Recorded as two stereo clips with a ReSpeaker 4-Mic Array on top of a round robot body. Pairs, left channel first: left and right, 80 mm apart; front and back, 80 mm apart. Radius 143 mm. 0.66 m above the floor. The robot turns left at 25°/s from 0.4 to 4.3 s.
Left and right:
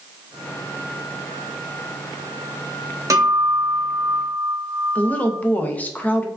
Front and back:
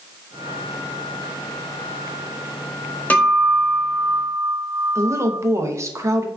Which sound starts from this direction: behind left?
A woman speaking, at 5.0 s.